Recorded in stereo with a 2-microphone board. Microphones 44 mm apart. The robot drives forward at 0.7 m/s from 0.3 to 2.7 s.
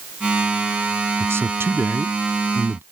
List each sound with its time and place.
1.2 s a man speaking: 75° right (ahead or behind); by 2.8 s 65° right (ahead or behind)